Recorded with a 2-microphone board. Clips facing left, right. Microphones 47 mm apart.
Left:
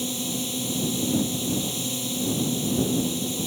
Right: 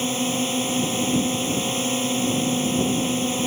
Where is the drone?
55° right (ahead or behind).